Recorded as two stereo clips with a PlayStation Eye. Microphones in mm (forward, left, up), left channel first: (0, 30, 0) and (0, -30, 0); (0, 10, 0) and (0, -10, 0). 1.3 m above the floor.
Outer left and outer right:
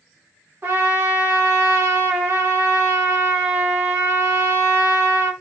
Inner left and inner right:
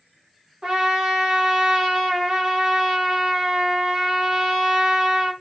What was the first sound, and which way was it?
A trumpet, 35° right (ahead or behind).